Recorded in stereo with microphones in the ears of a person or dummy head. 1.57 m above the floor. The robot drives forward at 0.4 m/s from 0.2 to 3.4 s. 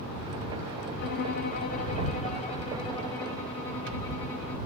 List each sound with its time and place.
1.0 s a violin: 60° left (ahead or behind), 0.7 m; by 4.6 s 25° left (ahead or behind), 1.4 m